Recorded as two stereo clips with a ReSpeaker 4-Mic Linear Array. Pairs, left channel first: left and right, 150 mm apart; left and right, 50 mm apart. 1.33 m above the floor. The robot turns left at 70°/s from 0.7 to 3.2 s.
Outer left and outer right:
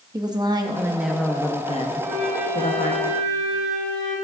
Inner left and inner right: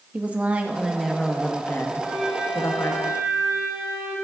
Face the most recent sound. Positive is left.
turn(degrees=-70)